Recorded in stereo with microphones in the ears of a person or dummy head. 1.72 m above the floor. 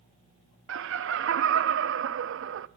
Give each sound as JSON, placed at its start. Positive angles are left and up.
{"t": 0.7, "sound": "laughter", "side_deg": -60, "distance_m": 0.8}